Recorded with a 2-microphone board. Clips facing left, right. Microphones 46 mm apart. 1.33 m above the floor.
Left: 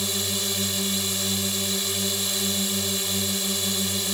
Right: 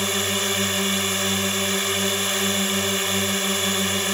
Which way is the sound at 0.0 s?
50° right (ahead or behind).